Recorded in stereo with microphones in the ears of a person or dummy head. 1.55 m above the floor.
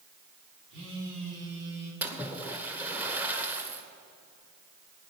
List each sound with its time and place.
0.7 s a phone buzzing: 60° right (ahead or behind), 4.5 m
2.0 s a splash: 10° right (ahead or behind), 1.4 m